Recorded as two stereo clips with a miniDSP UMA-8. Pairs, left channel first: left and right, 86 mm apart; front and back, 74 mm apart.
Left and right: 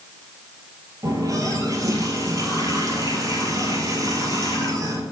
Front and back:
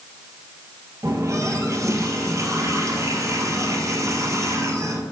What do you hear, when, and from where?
1.0 s a running tap: 135° right, 1.8 m